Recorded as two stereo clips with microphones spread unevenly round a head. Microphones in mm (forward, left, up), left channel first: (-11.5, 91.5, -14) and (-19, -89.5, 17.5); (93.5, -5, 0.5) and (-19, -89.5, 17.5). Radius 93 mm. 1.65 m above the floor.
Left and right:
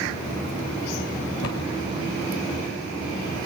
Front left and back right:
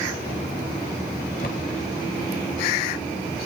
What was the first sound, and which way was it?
A cupboard door, 80° left.